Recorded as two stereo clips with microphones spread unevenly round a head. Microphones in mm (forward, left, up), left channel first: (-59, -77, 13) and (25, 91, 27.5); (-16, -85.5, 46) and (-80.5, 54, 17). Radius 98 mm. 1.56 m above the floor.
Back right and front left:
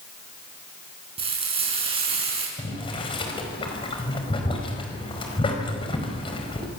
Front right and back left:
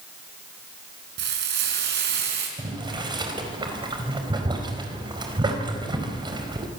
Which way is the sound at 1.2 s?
125° left.